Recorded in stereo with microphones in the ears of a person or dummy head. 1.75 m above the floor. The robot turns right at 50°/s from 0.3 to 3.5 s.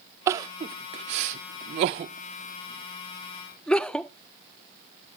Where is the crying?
15° right (ahead or behind), 0.5 m; by 4.1 s 5° left (ahead or behind), 0.5 m.